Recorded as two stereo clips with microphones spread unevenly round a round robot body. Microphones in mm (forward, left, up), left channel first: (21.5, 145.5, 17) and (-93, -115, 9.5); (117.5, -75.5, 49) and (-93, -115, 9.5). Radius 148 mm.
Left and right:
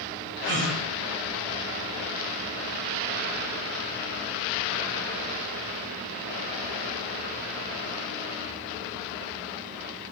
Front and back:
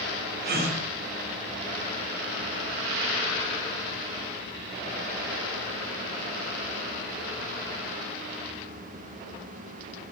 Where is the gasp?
155° right, 0.7 m.